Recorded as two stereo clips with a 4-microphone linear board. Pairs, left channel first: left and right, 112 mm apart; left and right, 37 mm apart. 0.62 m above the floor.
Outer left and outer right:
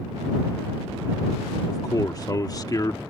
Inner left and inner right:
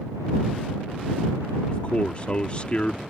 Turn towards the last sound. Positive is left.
turn(degrees=35)  # may be behind; listen again after turning